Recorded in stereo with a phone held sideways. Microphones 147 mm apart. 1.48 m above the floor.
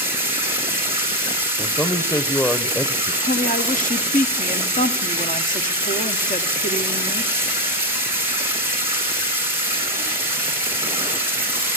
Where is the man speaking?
20° left (ahead or behind), 0.8 m.